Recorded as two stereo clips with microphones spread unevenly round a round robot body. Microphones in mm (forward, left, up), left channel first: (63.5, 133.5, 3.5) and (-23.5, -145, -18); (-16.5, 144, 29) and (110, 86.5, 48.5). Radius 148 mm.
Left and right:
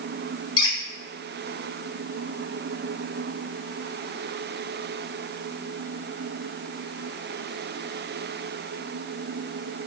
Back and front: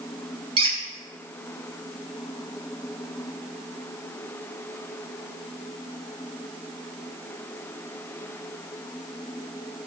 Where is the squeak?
5° left, 0.7 m.